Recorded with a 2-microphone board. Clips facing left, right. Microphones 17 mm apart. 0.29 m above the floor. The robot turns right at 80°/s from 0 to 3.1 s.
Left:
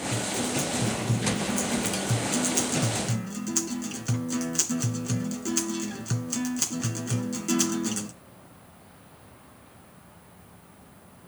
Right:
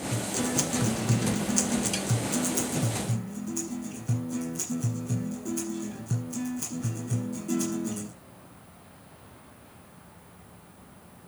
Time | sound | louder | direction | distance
0.1 | a guitar | right 1 dB | 165° right | 2.0 m